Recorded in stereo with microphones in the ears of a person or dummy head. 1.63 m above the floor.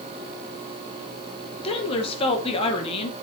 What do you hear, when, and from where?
1.6 s a woman speaking: 30° left (ahead or behind), 2.0 m